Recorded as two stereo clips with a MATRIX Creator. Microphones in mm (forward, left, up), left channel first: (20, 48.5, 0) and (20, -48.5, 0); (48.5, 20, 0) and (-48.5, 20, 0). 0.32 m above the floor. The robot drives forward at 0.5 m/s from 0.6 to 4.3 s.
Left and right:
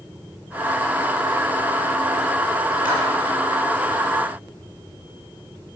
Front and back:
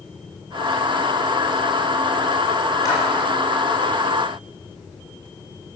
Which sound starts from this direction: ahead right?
A clap, at 2.9 s.